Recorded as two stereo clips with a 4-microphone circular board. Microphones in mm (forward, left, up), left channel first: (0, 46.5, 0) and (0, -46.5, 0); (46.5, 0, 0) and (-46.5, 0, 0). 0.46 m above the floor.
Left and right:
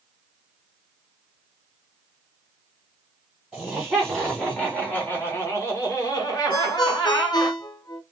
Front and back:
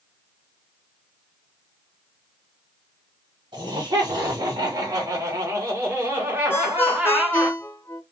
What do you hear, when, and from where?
3.5 s laughter: 175° right, 1.9 m; by 7.5 s 105° left, 2 m
6.5 s a ringtone: 60° left, 0.7 m